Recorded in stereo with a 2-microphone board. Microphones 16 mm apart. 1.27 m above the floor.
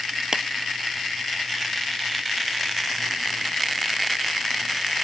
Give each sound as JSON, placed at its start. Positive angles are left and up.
{"t": 0.3, "sound": "a clap", "side_deg": -30}